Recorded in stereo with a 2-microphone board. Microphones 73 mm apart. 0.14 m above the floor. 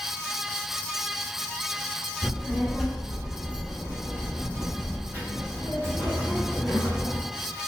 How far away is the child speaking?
About 1.4 m.